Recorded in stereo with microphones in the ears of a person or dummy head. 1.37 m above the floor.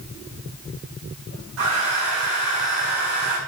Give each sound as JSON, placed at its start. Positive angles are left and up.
{"t": 1.6, "sound": "a hair dryer", "side_deg": -90, "distance_m": 7.5}